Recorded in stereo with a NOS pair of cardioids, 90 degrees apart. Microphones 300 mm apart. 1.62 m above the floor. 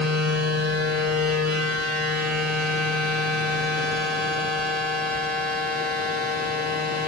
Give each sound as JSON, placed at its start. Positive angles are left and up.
{"t": 0.0, "sound": "a machine running", "azimuth_deg": -50, "distance_m": 9.0}